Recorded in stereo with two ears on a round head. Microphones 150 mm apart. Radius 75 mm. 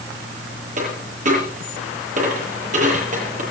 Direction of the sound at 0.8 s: 50° right (ahead or behind).